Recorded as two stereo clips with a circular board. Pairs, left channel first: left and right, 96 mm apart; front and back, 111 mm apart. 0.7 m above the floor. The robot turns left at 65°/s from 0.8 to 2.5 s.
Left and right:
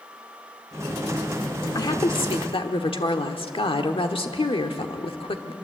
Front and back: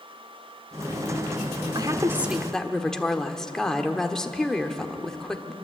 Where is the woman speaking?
135° left, 1.4 m; by 5.5 s 85° left, 1.4 m.